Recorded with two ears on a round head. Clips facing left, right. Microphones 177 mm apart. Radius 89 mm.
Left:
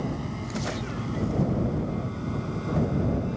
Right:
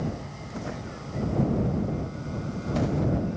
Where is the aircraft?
60° left (ahead or behind); by 3.4 s 65° left (ahead or behind).